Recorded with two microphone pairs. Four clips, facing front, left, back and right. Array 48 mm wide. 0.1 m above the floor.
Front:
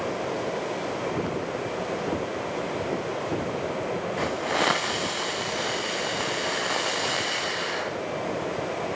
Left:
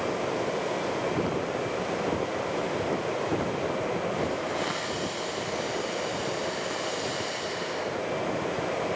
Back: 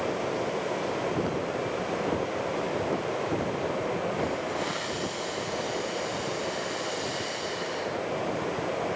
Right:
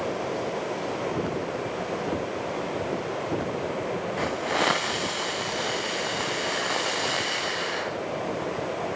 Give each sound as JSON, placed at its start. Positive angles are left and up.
{"t": 4.2, "sound": "a hiss", "azimuth_deg": -40, "distance_m": 3.5}